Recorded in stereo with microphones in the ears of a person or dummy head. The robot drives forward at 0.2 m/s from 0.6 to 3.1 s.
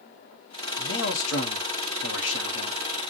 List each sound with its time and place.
0.8 s a man speaking: 65° left (ahead or behind), 1.1 m